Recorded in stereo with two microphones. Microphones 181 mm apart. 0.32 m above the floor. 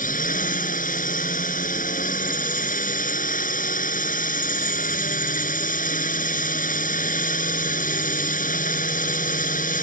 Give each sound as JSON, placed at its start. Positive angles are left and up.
{"t": 0.0, "sound": "a drone", "side_deg": 50}